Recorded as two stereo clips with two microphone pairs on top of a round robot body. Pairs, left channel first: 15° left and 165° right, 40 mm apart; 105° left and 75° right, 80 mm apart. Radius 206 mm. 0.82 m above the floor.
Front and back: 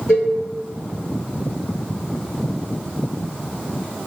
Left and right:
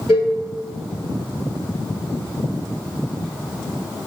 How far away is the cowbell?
About 1.0 m.